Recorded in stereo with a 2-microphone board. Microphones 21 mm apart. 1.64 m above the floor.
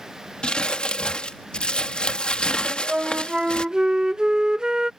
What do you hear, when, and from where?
0.4 s crumpling: 55° left (ahead or behind)
2.6 s a flute: 35° right (ahead or behind)